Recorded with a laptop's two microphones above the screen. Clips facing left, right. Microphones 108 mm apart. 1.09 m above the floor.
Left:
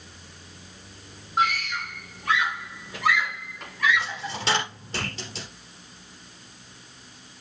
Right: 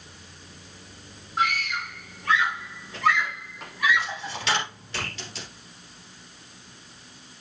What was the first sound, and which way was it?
A scream, 25° left (ahead or behind).